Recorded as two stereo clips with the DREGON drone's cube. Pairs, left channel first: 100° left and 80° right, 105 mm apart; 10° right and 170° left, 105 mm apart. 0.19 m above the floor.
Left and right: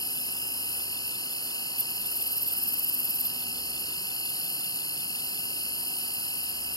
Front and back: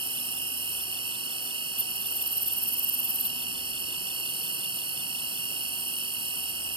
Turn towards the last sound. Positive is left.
turn(degrees=145)